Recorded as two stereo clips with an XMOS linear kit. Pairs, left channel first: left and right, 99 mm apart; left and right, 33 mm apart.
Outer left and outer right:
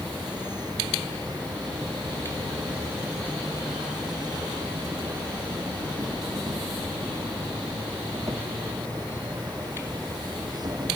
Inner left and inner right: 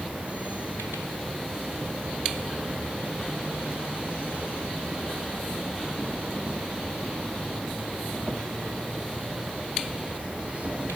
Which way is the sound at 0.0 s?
45° right (ahead or behind).